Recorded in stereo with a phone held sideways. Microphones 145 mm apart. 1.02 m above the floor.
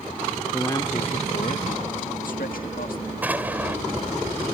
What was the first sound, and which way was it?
A man speaking, 10° left (ahead or behind).